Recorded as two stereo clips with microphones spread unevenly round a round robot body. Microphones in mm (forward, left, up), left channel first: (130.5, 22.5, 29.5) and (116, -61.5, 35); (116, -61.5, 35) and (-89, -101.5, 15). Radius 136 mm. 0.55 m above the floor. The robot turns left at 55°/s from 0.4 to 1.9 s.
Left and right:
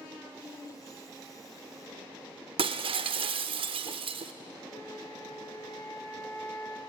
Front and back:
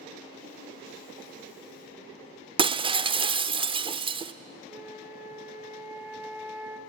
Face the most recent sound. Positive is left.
turn(degrees=115)